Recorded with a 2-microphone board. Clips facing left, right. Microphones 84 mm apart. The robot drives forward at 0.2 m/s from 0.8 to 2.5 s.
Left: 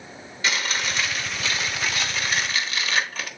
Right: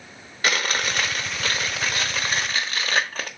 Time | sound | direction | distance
0.4 | chewing | 55° right (ahead or behind) | 1.0 m